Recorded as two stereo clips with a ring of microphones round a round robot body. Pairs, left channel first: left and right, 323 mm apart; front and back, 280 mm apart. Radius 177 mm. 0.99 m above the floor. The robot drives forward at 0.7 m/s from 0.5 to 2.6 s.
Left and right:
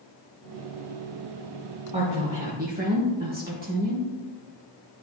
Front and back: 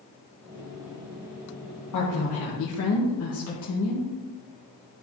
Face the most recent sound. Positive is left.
turn(degrees=-30)